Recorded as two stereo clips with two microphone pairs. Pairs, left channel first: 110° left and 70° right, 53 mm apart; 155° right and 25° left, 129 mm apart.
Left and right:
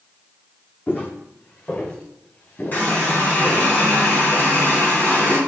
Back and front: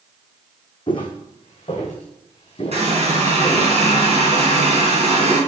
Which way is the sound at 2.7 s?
55° left.